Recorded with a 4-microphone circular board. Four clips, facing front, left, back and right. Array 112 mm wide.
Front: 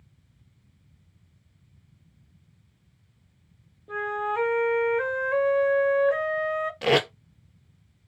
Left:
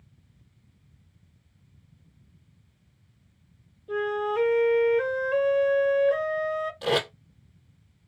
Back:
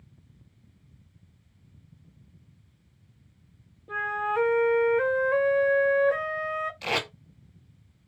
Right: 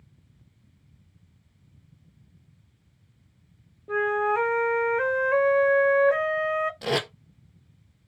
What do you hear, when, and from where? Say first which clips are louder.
3.9 s a flute: right 3 dB, even; 100° right, 0.5 m
6.8 s tape being pulled: left 1 dB, front 8 dB; 15° right, 1.0 m